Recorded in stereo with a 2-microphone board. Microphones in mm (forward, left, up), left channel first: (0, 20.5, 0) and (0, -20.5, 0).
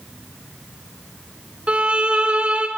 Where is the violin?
25° right (ahead or behind), 1.3 m.